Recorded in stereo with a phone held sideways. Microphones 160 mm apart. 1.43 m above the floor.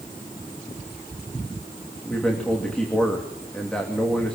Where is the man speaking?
5° left (ahead or behind), 2.5 m.